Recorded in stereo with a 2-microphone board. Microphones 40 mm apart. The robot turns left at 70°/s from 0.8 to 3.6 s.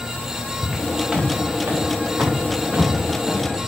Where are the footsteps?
Centre (ahead or behind), 5.5 m; by 3.5 s 20° left (ahead or behind), 3.5 m.